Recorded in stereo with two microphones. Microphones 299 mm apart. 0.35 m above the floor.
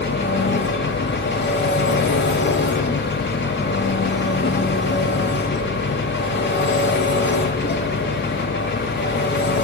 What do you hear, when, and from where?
0.0 s an engine running: 35° left (ahead or behind), 1.0 m